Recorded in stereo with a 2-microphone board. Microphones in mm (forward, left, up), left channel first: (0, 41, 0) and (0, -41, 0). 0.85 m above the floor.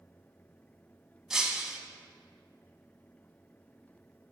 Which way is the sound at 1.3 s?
5° right (ahead or behind).